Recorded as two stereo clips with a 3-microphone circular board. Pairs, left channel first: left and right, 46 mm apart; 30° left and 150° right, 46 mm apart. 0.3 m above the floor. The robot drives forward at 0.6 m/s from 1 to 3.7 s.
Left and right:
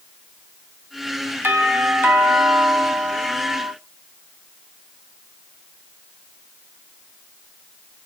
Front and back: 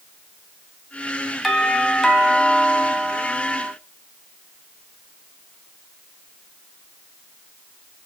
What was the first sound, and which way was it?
A doorbell, 60° right.